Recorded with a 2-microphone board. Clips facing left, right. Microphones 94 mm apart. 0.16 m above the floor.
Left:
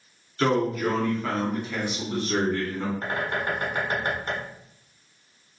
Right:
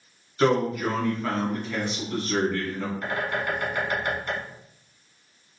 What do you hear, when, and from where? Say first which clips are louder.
0.4 s a man speaking: right 1 dB; 15° right (ahead or behind), 1.4 m; by 2.9 s 30° left (ahead or behind), 1.3 m
3.0 s a bird: even; 35° left (ahead or behind), 1.2 m